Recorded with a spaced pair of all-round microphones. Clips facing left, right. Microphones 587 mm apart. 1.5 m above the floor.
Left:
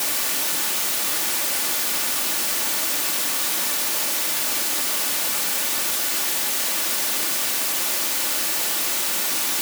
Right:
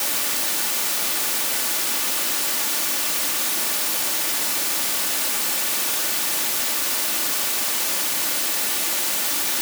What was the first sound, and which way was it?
Only background noise.